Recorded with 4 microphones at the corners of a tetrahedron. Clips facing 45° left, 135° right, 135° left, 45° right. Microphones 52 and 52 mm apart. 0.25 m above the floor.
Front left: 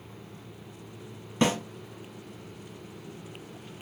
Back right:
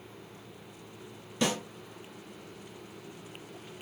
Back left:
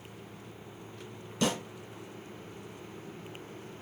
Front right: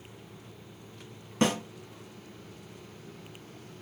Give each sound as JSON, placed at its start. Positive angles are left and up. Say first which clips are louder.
{"t": 1.4, "sound": "a snare drum", "louder": "front left 5 dB, front right 3 dB", "azimuth_deg": -5, "distance_m": 1.3}